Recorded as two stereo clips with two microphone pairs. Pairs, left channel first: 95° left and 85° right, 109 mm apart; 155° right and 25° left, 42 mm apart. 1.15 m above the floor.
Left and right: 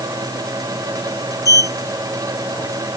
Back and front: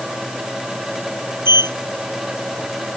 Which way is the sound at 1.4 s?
35° left.